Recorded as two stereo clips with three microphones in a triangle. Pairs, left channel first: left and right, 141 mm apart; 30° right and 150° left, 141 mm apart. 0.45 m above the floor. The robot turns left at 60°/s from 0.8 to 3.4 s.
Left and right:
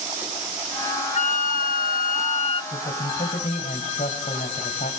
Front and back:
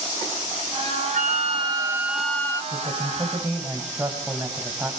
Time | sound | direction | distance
1.1 | a flute | 125° left | 0.6 m
2.7 | a man speaking | 115° left | 2.5 m